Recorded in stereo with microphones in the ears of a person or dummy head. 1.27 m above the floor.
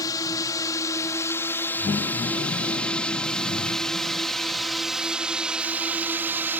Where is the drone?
20° left (ahead or behind); by 6.6 s 10° right (ahead or behind).